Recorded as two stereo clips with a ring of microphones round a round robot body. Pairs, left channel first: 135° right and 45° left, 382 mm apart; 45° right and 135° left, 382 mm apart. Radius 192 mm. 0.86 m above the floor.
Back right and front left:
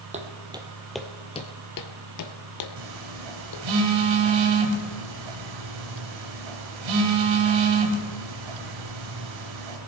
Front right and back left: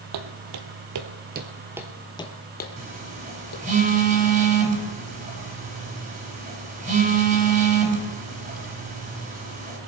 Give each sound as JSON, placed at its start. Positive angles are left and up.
{"t": 0.1, "sound": "footsteps", "azimuth_deg": 115, "distance_m": 1.5}
{"t": 2.8, "sound": "a phone buzzing", "azimuth_deg": 65, "distance_m": 3.0}